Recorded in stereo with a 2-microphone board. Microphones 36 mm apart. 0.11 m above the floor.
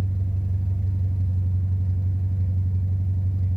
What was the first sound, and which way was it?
An engine running, 25° right (ahead or behind).